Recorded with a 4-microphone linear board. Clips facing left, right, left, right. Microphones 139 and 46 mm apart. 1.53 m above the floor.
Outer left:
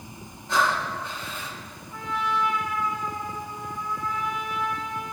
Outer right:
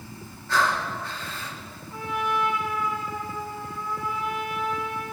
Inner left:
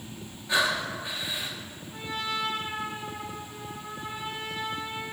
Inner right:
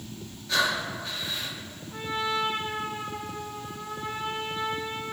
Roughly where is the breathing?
Centre.